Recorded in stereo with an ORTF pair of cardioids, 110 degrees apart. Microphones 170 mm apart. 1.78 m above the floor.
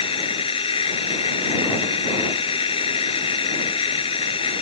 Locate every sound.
0.0 s a machine running: 35° left